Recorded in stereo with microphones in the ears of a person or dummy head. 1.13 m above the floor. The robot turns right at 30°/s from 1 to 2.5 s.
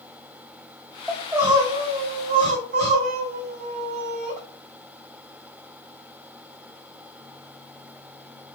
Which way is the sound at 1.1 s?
175° right.